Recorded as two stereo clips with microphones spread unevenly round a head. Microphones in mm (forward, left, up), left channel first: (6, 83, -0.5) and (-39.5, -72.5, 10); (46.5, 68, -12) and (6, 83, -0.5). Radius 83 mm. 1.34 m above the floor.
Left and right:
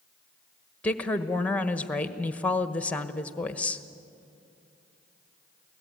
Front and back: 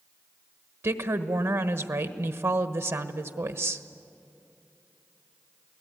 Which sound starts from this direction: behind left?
A woman speaking, at 0.8 s.